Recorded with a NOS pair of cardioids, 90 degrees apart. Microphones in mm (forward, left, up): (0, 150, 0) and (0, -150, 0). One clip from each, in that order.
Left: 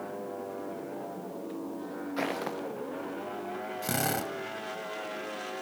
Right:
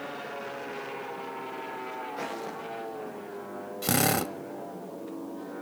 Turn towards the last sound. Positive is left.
turn(degrees=-40)